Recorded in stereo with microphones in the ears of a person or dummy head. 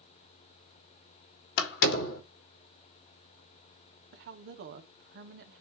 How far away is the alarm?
I don't hear an alarm.